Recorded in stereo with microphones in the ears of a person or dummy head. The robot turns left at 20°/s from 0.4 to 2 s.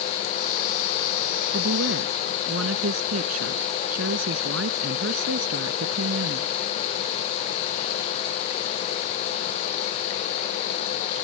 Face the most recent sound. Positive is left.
turn(degrees=-85)